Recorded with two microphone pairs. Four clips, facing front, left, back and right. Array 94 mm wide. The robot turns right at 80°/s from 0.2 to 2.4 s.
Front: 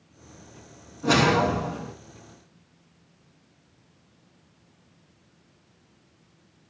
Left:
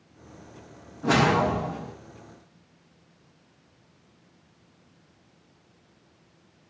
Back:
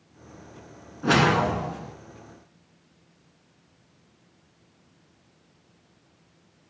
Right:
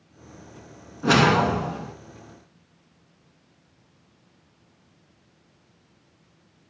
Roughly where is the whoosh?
Behind right.